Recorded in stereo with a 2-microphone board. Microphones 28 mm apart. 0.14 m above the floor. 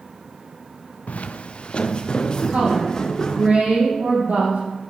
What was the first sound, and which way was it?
Footsteps, 60° left (ahead or behind).